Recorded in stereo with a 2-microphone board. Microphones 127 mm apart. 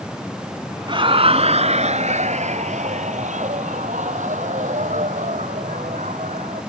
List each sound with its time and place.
0.9 s laughter: 40° right (ahead or behind); by 6.6 s 80° right